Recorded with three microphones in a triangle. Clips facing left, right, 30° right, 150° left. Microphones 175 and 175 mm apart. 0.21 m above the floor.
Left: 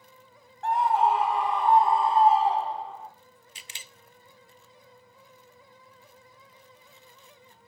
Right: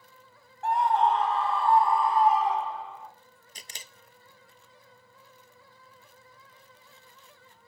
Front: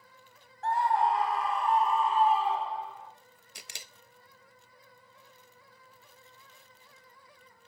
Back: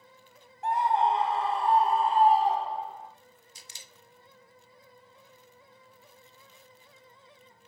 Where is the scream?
175° right, 1.7 m; by 3.1 s 125° left, 2.5 m.